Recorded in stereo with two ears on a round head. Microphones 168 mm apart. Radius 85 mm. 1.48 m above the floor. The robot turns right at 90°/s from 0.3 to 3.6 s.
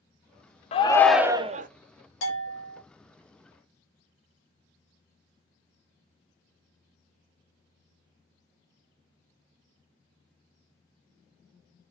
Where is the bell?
80° left, 1.5 m; by 2.8 s 140° left, 1.5 m.